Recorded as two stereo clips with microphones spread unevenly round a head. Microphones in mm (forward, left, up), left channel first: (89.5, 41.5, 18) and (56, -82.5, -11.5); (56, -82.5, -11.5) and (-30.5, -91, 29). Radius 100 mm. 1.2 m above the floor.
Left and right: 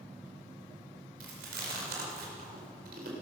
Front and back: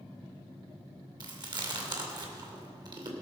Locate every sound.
1.2 s chewing: 145° right, 2.5 m